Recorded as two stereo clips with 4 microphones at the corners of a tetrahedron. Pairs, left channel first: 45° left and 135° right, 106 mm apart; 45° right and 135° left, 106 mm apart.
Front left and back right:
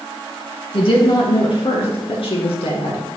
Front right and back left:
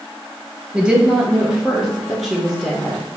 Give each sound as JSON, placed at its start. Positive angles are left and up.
{"t": 0.7, "sound": "a woman speaking", "azimuth_deg": 55, "distance_m": 2.0}